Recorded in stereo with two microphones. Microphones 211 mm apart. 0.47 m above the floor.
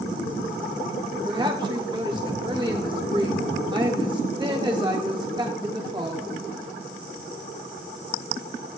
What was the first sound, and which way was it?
A woman speaking, 20° right (ahead or behind).